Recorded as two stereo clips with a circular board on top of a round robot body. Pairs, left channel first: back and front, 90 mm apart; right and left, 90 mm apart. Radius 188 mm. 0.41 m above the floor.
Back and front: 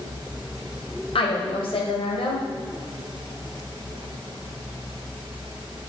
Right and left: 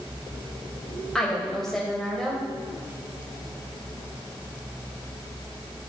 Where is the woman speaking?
175° right, 2.5 m.